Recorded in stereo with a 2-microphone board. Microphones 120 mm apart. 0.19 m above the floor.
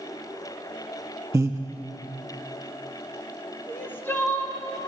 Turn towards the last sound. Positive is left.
turn(degrees=20)  # may be behind; listen again after turning